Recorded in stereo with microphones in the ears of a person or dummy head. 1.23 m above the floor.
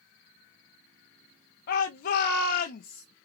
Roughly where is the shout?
Left.